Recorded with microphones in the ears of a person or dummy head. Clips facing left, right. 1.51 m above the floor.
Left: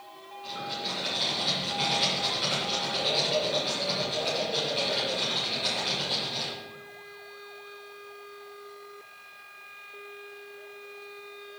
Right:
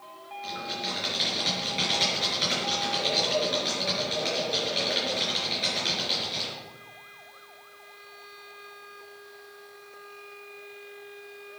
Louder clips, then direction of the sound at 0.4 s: Right 1 dB; 40° right (ahead or behind).